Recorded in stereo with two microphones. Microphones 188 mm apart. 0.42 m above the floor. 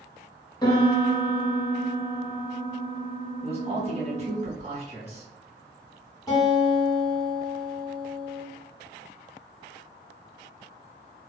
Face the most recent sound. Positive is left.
turn(degrees=20)  # may be behind; listen again after turning